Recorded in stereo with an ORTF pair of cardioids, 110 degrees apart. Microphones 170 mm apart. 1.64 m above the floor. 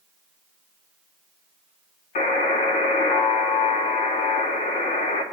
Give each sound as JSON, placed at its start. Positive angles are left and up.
{"t": 2.1, "sound": "a buzzer", "azimuth_deg": 55, "distance_m": 4.5}